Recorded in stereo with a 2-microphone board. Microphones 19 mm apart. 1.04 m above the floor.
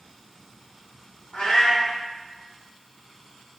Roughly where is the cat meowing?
Left.